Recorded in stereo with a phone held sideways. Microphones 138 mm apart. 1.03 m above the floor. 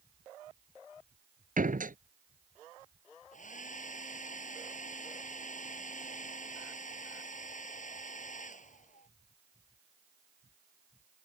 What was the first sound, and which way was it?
A door slam, 80° right.